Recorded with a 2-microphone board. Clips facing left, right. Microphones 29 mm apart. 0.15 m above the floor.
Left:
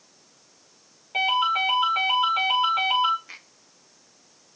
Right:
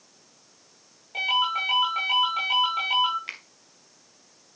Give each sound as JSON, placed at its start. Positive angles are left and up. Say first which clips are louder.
{"t": 1.1, "sound": "a ringtone", "louder": "left 2 dB", "side_deg": 25, "distance_m": 6.0}
{"t": 3.3, "sound": "a finger snap", "louder": "right 6 dB", "side_deg": -65, "distance_m": 2.0}